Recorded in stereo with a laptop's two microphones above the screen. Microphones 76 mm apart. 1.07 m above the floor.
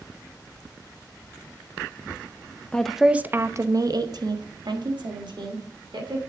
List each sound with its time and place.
2.7 s a woman speaking: 10° left (ahead or behind), 0.8 m; by 6.2 s 85° right, 3 m